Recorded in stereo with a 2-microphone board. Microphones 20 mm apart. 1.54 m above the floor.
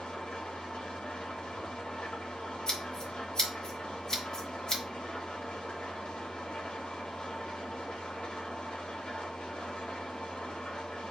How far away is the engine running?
About 3 m.